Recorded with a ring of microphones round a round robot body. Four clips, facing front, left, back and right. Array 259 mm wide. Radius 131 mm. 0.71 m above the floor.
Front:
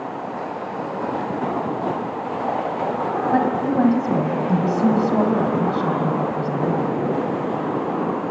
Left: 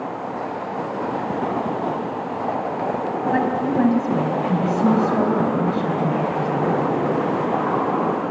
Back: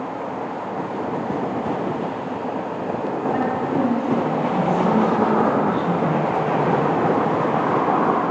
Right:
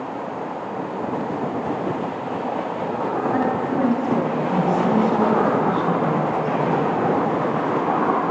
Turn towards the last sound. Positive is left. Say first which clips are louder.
# left 4 dB, front 3 dB
turn(degrees=25)